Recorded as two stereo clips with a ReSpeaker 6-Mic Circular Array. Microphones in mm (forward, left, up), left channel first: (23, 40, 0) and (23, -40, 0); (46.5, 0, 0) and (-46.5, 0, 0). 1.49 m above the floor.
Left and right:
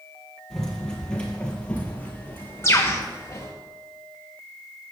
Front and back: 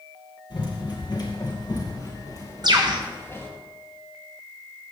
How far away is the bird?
About 1.0 m.